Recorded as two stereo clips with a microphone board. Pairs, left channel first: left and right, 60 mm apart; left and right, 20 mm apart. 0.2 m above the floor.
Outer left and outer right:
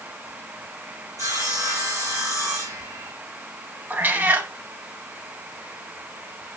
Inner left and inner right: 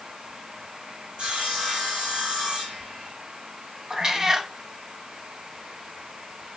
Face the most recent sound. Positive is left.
turn(degrees=-30)  # may be behind; listen again after turning